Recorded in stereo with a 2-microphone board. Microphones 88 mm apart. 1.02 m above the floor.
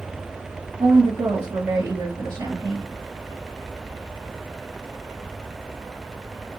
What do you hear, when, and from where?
0.8 s a woman speaking: 55° right (ahead or behind), 1.8 m